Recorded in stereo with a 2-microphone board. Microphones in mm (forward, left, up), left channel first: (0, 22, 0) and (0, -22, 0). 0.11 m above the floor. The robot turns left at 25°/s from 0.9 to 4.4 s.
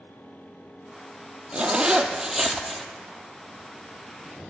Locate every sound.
1.5 s a zipper: 150° right, 0.6 m; by 2.8 s 175° left, 0.6 m